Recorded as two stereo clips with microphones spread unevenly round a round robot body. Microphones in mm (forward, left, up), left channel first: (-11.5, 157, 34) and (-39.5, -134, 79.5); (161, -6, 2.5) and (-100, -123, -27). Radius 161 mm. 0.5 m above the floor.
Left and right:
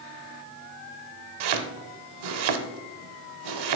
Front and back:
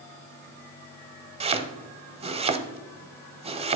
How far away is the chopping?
About 0.7 m.